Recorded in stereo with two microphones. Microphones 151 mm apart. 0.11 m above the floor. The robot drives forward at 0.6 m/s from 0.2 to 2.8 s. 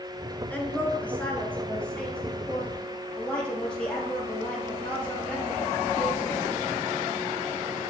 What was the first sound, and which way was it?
A woman speaking, 10° left (ahead or behind).